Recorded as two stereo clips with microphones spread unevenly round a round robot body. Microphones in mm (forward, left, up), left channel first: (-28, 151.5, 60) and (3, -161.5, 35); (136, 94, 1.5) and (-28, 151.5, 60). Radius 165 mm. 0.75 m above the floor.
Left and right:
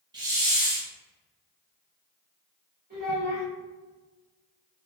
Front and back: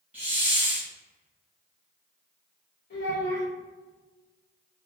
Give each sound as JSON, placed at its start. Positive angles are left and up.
{"t": 0.1, "sound": "a hiss", "azimuth_deg": -160, "distance_m": 0.6}
{"t": 2.9, "sound": "a child speaking", "azimuth_deg": -20, "distance_m": 1.9}